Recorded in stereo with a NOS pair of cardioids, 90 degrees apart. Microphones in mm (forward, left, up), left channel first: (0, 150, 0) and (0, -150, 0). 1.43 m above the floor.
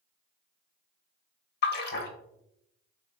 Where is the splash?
35° left, 0.6 m.